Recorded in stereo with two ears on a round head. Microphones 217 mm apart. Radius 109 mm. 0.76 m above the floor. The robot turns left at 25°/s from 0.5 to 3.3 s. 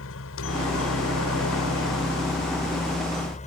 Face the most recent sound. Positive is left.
turn(degrees=35)